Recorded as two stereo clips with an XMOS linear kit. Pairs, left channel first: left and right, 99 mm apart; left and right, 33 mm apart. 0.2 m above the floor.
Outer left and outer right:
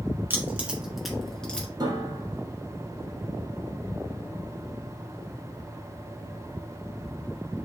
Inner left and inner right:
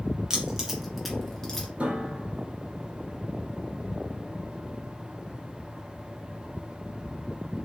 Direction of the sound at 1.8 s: 45° right (ahead or behind).